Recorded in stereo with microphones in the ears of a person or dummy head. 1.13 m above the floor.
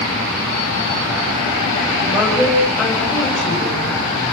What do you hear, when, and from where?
2.1 s a woman speaking: centre (ahead or behind), 5.5 m